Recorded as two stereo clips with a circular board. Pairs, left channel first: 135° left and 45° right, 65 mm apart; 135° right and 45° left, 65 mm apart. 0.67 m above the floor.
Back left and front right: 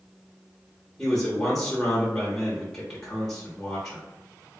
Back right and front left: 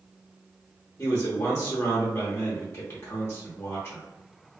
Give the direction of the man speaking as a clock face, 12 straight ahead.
5 o'clock.